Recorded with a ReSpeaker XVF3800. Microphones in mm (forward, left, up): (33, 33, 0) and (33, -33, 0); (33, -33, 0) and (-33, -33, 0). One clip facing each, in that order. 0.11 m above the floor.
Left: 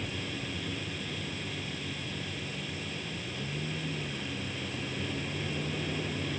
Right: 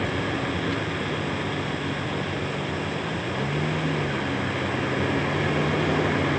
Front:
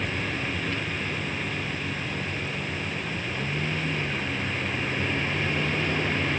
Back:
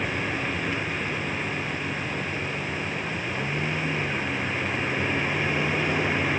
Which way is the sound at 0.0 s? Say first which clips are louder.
Right 11 dB, back 2 dB; 105° right.